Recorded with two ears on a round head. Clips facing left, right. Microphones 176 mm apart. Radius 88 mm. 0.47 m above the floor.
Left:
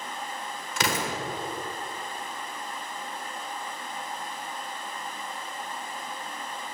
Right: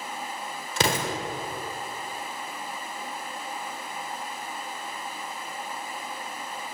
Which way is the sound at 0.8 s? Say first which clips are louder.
Right 3 dB; 25° right (ahead or behind).